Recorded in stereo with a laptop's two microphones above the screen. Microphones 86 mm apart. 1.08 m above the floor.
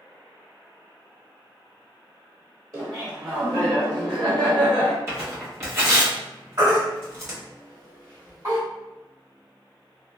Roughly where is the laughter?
Right.